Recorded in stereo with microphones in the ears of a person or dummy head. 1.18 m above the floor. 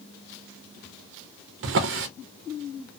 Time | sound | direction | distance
1.6 | a drawer | 60° right (ahead or behind) | 0.5 m